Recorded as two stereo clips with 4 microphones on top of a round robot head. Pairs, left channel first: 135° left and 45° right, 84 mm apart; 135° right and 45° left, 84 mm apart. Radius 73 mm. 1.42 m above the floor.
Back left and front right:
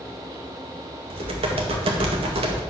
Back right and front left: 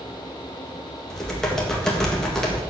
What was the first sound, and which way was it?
Typing on a keyboard, 55° right.